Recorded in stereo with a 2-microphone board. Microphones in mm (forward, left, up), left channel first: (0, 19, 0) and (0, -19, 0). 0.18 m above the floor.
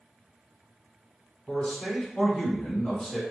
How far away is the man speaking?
About 1.2 m.